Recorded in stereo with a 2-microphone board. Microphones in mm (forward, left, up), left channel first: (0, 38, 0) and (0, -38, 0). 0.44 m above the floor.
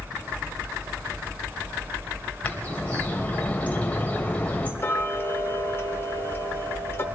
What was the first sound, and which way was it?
A bird, 20° left (ahead or behind).